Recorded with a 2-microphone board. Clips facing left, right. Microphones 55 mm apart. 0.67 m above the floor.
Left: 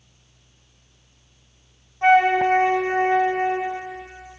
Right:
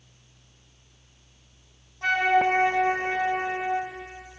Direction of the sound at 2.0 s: 30° left (ahead or behind).